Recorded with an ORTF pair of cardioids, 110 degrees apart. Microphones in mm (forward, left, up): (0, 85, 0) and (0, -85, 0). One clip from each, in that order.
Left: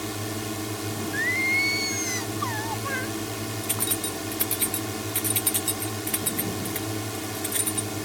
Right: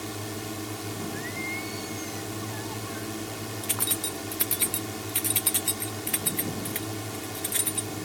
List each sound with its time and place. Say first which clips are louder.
0.0 s a drone: left 4 dB; 20° left
1.1 s singing: left 13 dB; 70° left
3.6 s keys jangling: even; 5° right